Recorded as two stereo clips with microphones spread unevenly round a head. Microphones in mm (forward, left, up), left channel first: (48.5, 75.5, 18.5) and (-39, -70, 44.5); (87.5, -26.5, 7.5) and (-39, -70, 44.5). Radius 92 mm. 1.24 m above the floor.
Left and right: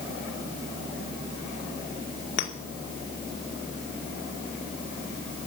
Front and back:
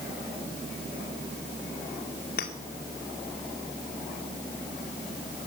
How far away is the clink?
About 2.5 m.